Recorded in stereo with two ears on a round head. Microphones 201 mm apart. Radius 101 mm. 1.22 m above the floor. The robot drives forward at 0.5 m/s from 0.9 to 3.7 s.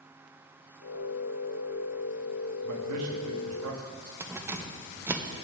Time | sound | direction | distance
2.6 | a man speaking | 90° right | 1.7 m
4.2 | keys jangling | 10° right (ahead or behind) | 0.6 m